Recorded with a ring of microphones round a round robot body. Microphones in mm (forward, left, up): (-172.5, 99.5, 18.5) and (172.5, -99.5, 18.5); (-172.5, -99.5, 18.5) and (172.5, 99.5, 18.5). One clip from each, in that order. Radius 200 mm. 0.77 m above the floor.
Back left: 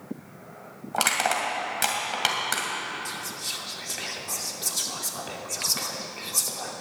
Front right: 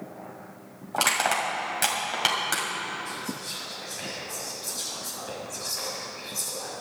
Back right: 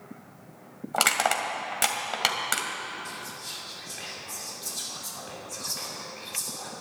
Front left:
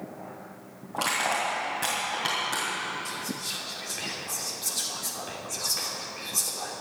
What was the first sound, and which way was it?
Crushing, 125° right.